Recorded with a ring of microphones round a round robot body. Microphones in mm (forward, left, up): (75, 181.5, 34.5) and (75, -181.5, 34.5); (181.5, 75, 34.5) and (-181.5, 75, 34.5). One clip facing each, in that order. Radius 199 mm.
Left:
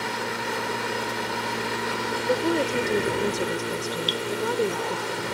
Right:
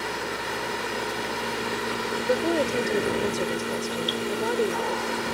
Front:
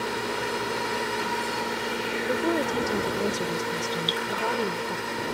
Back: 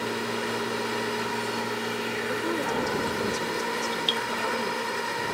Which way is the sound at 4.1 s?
130° left.